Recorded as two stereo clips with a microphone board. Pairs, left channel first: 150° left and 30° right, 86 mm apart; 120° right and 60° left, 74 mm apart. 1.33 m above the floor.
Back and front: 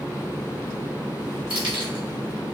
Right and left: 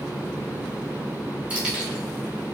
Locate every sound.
1.5 s keys jangling: 10° right, 1.5 m; by 2.5 s 30° right, 1.0 m